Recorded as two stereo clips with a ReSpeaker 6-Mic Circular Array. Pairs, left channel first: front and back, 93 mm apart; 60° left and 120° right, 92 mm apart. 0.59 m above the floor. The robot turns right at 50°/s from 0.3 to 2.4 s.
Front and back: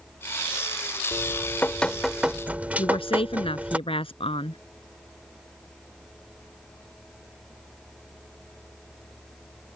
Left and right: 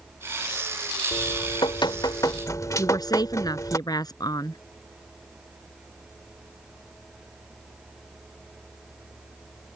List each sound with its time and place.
1.1 s dripping: 45° left; by 3.8 s 110° left
2.8 s a woman speaking: 15° left